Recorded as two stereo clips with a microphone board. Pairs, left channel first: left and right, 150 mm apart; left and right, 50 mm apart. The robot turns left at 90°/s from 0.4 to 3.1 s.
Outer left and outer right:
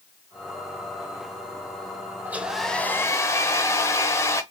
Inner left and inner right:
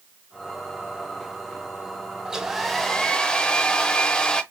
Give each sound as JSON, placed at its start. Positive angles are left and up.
{"t": 2.2, "sound": "a hair dryer", "side_deg": -15, "distance_m": 0.7}